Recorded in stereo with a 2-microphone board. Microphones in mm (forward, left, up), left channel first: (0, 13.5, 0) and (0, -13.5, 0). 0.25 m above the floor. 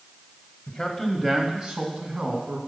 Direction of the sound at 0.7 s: 20° left (ahead or behind).